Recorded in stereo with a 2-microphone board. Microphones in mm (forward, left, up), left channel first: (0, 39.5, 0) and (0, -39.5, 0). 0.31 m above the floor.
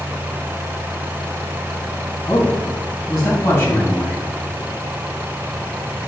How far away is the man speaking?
About 3 m.